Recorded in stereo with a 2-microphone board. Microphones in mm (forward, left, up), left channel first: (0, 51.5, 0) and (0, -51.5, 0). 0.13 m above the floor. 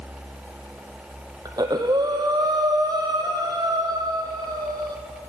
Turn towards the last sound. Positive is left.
turn(degrees=-40)  # may be behind; listen again after turning